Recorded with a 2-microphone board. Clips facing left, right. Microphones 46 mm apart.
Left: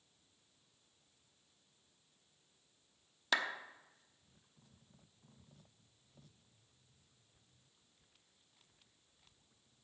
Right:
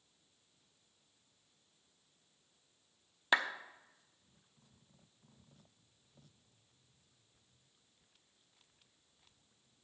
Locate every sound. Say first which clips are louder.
3.3 s a clap: right 4 dB; 25° right (ahead or behind), 0.8 m